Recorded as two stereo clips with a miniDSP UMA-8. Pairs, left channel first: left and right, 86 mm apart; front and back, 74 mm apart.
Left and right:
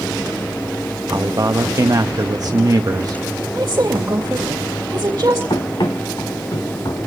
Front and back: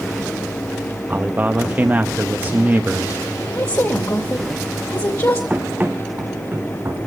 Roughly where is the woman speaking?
Ahead right.